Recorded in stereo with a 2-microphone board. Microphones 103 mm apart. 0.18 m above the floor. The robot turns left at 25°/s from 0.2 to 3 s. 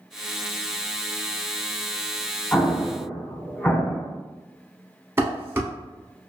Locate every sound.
2.5 s an explosion: 20° left (ahead or behind), 0.8 m; by 4.1 s 10° left (ahead or behind), 0.8 m
5.2 s dishes clattering: 20° right (ahead or behind), 0.9 m